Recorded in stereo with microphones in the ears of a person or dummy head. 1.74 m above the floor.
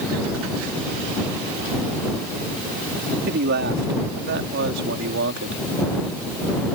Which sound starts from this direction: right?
A man speaking, at 3.3 s.